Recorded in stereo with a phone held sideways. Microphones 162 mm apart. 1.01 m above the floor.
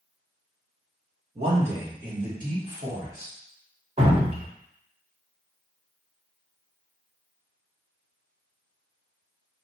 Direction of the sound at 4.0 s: 40° right (ahead or behind).